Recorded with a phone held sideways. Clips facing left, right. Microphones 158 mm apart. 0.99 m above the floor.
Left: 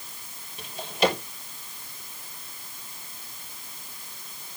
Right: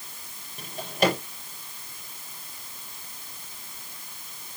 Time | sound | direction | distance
0.6 | a drawer | 45° right (ahead or behind) | 6.5 m